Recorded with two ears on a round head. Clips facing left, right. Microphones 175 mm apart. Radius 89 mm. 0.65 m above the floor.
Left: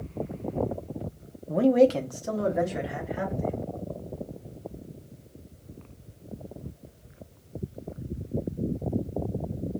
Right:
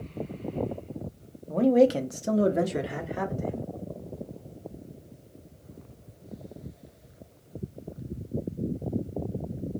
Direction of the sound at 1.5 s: 15° left (ahead or behind).